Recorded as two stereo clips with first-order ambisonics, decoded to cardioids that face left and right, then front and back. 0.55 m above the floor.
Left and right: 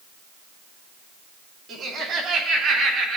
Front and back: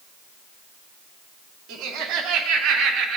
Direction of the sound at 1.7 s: 145° right.